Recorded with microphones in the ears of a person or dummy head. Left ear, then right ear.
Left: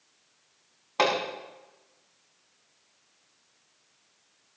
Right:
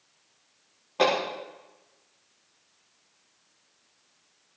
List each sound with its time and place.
1.0 s hammering: 50° left (ahead or behind), 5.5 m